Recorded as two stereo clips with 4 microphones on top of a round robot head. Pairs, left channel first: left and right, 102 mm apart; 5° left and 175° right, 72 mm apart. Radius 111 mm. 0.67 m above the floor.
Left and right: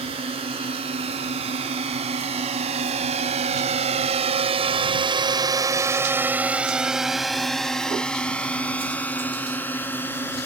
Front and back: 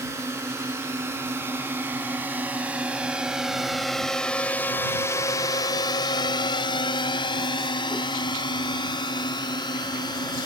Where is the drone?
120° right; by 10.5 s 20° left.